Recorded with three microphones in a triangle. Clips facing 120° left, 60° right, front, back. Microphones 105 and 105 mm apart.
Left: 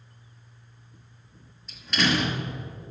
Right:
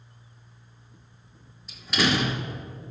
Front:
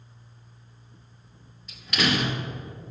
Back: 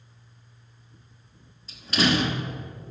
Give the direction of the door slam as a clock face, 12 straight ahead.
5 o'clock.